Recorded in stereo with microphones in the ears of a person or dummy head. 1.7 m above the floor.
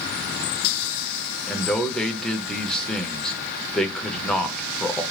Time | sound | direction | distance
1.5 | a man speaking | 5° left (ahead or behind) | 0.7 m